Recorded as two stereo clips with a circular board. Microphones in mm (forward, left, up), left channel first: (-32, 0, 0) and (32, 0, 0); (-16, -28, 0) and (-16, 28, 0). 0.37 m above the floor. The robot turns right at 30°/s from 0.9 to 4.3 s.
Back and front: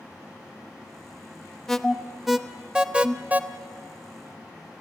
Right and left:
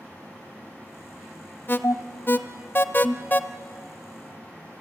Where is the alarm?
100° right, 0.7 m; by 3.4 s 50° right, 0.7 m.